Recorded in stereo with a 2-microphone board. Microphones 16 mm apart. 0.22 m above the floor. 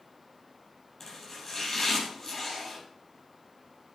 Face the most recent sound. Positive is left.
turn(degrees=25)  # may be behind; listen again after turning